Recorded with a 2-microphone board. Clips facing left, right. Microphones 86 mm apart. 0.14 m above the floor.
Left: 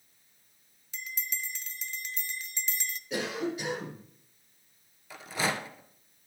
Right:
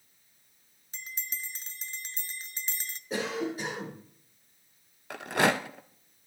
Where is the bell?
35° right (ahead or behind), 0.5 m.